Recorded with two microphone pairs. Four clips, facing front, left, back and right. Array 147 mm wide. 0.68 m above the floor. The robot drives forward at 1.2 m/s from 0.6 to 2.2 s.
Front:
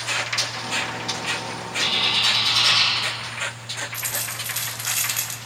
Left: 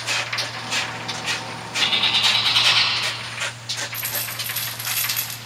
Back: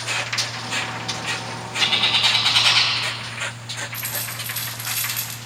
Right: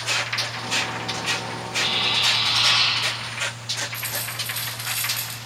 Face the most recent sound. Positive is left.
turn(degrees=50)